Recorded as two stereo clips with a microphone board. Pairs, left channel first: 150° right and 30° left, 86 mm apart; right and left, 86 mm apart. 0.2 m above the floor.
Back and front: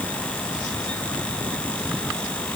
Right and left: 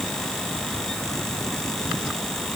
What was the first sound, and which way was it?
Only background noise.